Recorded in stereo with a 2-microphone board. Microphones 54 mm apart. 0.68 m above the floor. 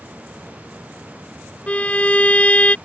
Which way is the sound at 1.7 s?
25° left (ahead or behind).